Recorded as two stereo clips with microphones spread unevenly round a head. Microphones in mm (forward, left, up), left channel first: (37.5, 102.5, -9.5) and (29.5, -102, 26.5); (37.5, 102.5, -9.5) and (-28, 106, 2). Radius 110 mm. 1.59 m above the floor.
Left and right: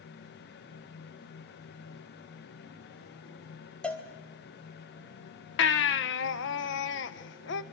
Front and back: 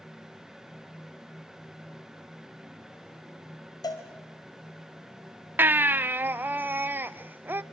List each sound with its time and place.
3.8 s a cowbell: straight ahead, 3.5 m
5.6 s a baby crying: 125° left, 1.0 m